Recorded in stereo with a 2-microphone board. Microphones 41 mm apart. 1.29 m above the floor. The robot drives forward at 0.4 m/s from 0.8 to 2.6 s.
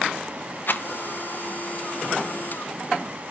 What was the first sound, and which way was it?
A rattle, 50° left (ahead or behind).